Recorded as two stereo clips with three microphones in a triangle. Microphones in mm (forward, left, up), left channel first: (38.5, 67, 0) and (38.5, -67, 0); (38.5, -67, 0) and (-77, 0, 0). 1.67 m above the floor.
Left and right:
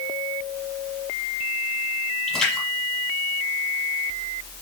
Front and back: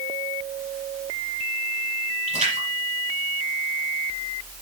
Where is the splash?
175° left, 7 m.